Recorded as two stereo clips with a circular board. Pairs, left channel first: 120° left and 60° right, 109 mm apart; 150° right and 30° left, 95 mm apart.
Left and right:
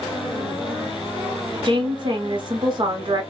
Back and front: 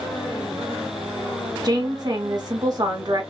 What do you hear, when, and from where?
1.6 s a woman speaking: 15° right, 1.0 m